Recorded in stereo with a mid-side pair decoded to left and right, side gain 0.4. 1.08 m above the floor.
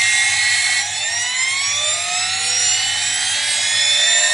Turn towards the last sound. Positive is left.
turn(degrees=-20)